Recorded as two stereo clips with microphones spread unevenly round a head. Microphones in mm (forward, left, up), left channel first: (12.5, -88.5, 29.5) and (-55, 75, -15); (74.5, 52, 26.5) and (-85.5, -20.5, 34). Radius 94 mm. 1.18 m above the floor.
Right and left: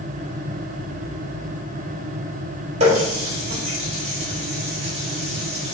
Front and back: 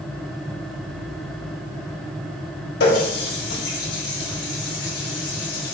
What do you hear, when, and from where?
2.8 s a running tap: 55° left, 3 m